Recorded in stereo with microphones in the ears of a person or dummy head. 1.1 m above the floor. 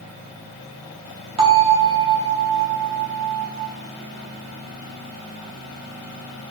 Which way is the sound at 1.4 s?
35° right (ahead or behind).